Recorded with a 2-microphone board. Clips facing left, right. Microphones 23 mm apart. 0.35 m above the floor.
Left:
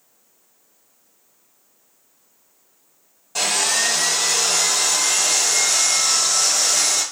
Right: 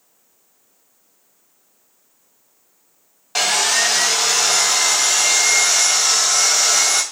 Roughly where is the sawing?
Right.